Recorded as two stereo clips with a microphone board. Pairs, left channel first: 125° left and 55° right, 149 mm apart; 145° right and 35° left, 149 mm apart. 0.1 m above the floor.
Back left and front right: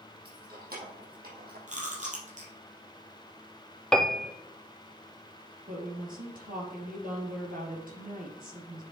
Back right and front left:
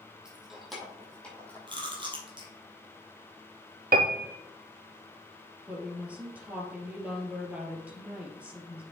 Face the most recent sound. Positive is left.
turn(degrees=-45)